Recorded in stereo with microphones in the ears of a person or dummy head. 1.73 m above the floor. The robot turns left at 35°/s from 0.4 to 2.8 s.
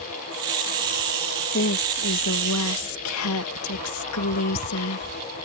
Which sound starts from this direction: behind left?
A woman speaking, at 1.5 s.